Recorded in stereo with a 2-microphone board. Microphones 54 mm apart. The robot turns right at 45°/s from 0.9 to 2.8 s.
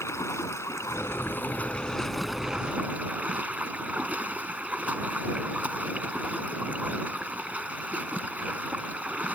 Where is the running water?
120° left; by 9.4 s 155° right.